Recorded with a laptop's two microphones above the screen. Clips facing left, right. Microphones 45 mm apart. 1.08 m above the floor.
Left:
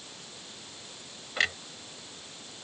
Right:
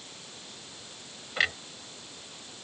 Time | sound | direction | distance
1.4 | a clunk | 5° right (ahead or behind) | ?